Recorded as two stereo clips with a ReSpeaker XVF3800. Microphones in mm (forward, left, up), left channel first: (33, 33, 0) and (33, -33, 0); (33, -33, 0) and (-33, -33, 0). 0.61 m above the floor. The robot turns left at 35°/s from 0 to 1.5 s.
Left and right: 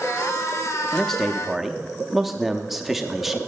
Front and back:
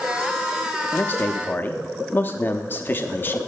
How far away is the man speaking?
About 0.6 m.